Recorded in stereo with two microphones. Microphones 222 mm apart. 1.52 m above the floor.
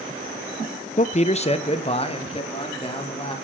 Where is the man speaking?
35° left (ahead or behind), 0.5 m; by 3.3 s 25° left (ahead or behind), 3.5 m.